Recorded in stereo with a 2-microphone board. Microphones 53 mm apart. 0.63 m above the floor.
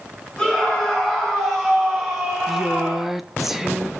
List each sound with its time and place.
0.4 s a scream: 10° left (ahead or behind), 4 m; by 3.2 s 15° right (ahead or behind), 3 m
2.5 s a woman speaking: 5° right (ahead or behind), 0.6 m